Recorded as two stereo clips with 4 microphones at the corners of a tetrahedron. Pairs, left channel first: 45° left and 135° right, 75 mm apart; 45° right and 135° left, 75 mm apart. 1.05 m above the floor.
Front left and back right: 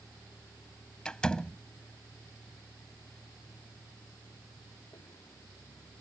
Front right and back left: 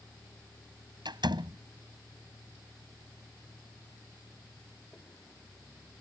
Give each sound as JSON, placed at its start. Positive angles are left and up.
{"t": 0.0, "sound": "a vehicle", "azimuth_deg": -15}
{"t": 1.1, "sound": "a door slam", "azimuth_deg": 120}